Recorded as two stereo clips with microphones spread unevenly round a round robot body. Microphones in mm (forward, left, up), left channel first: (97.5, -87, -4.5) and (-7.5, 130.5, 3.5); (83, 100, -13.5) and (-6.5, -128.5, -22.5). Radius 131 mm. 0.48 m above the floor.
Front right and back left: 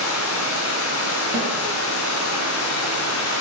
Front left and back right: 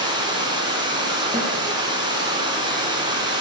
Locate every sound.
0.0 s running water: 40° right, 2.5 m
1.3 s a snare drum: 175° left, 4.5 m